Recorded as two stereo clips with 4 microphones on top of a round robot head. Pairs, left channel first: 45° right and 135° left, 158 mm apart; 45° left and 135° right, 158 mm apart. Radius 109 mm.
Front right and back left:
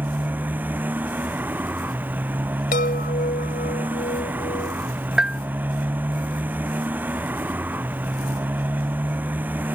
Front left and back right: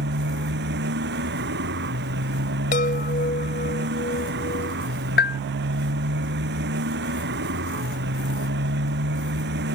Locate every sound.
0.0 s a motorcycle: 145° right
2.7 s a chime: straight ahead
5.2 s a bell: 50° left